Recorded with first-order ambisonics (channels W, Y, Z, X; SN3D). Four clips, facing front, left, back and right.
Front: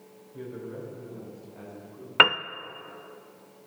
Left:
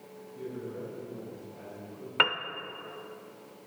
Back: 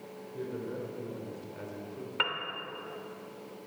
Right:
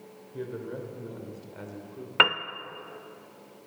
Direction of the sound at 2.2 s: 20° right.